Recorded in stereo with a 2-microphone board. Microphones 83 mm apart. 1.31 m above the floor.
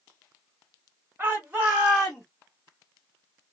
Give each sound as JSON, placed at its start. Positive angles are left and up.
{"t": 1.2, "sound": "a shout", "side_deg": -25, "distance_m": 2.0}